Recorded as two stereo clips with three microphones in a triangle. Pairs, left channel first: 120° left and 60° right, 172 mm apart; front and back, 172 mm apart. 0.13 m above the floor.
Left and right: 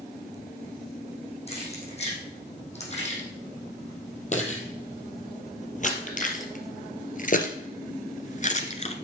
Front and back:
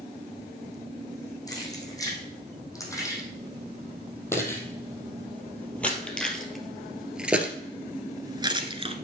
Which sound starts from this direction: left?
Keys jangling, at 1.5 s.